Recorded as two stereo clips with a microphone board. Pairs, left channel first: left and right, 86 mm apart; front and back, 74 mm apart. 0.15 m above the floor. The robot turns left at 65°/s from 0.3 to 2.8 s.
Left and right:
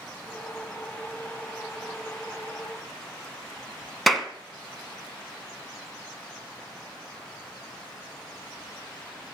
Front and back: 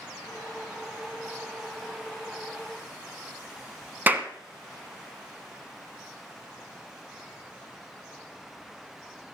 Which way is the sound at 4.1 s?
175° left.